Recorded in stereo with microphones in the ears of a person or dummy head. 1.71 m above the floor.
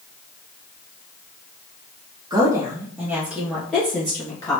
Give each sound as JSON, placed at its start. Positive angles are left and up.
{"t": 2.3, "sound": "a woman speaking", "side_deg": -20, "distance_m": 1.5}